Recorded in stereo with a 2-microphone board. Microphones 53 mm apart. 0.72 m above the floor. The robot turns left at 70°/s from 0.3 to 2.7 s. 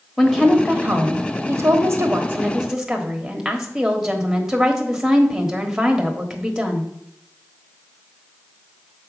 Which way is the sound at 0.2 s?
5° right.